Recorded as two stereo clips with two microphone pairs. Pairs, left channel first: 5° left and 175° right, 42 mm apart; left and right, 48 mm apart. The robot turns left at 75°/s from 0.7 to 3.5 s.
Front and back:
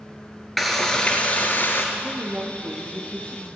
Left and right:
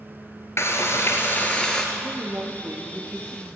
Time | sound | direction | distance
0.6 | frying | 90° left | 2 m
1.9 | a woman speaking | 95° right | 2.5 m